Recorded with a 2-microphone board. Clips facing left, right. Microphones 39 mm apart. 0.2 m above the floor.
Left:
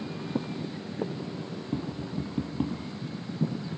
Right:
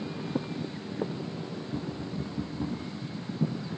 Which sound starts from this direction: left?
Tapping, at 1.7 s.